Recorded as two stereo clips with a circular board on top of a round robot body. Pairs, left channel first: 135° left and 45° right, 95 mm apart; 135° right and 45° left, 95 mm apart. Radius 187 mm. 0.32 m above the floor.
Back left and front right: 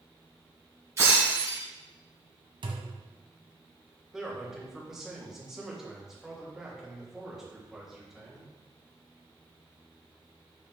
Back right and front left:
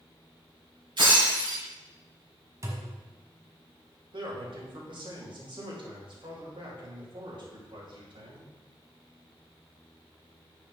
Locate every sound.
1.0 s breaking glass: 15° left, 4.5 m
2.6 s a thud: 10° right, 1.3 m
4.1 s a man speaking: 40° left, 3 m